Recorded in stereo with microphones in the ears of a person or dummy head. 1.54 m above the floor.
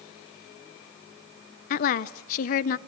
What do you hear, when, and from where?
1.7 s a woman speaking: 50° left (ahead or behind), 0.6 m